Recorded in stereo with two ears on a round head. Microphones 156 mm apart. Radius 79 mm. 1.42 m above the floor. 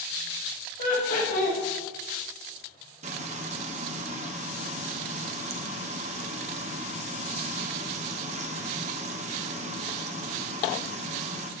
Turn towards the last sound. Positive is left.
turn(degrees=-40)  # may be behind; listen again after turning